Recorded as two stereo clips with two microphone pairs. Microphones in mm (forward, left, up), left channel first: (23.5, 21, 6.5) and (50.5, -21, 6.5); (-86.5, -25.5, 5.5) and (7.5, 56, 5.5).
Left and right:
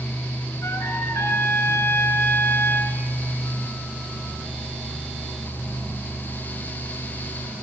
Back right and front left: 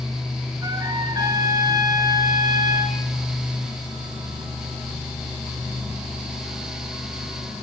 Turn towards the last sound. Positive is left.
turn(degrees=100)